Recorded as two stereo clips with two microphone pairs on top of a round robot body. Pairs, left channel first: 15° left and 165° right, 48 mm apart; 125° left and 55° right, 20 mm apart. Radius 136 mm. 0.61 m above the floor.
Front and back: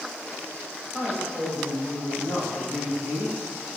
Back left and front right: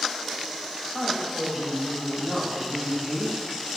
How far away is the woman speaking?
About 4.5 m.